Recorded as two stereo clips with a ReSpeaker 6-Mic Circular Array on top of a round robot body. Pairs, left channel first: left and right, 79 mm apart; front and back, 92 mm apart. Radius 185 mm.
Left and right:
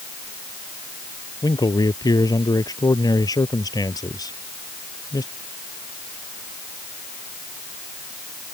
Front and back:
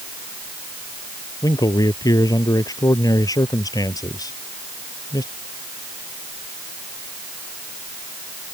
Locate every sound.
1.4 s a man speaking: 50° left